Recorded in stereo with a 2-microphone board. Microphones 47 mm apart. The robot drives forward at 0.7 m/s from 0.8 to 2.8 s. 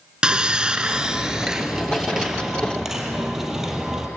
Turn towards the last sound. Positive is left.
turn(degrees=-10)  # may be behind; listen again after turning